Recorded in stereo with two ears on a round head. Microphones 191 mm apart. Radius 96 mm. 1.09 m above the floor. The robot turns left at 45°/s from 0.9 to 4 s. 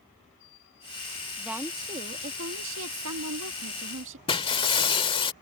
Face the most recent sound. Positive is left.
turn(degrees=25)  # may be behind; listen again after turning